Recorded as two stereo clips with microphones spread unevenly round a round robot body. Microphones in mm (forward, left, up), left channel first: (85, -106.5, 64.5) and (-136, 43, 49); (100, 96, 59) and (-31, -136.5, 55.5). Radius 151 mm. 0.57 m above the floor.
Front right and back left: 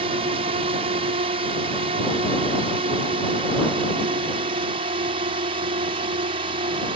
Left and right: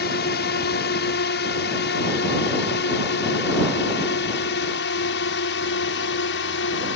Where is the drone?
90° left; by 7.0 s 85° left.